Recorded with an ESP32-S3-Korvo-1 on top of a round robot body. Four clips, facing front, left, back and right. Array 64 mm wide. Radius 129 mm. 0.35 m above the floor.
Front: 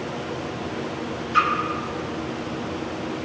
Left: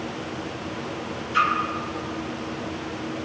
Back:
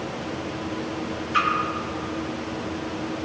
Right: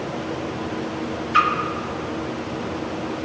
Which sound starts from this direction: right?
A splash, at 1.3 s.